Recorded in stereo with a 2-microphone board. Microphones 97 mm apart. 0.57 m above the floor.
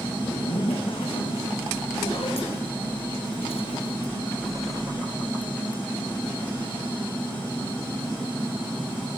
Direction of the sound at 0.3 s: 80° left.